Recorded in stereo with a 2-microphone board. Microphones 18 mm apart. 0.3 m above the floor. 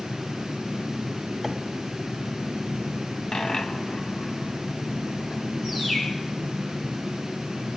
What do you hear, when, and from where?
1.4 s a microwave: 10° right (ahead or behind), 1.4 m
3.3 s a dropped coin: 45° left (ahead or behind), 1.1 m
5.6 s a bird: 40° left (ahead or behind), 4.5 m